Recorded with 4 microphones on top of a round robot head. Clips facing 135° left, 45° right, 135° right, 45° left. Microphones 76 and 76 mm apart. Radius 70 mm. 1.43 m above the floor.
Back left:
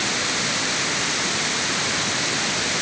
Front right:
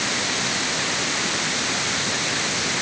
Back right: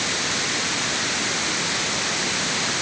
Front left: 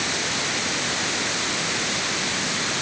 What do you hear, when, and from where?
Only background noise.